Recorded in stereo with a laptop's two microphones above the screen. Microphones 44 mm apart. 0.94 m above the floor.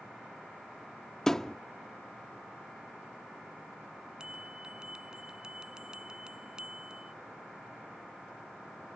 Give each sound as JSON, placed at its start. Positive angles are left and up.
{"t": 1.3, "sound": "a thud", "side_deg": 10}
{"t": 4.2, "sound": "a bell", "side_deg": -20}